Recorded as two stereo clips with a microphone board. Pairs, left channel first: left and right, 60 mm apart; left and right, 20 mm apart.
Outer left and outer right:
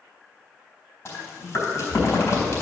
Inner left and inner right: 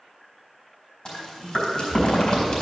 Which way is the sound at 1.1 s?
50° left (ahead or behind).